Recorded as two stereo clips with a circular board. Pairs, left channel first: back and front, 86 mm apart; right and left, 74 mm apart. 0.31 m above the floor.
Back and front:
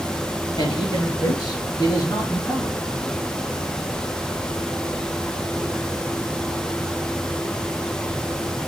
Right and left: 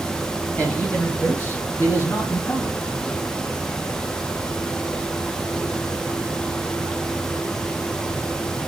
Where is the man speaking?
155° right, 3 m; by 2.9 s 135° right, 4 m.